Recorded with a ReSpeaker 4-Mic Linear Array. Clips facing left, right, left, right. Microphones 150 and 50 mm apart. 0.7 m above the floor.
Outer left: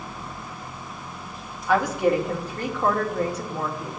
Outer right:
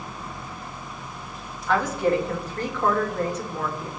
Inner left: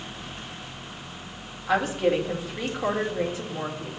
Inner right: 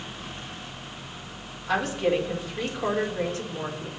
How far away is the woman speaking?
About 1.7 m.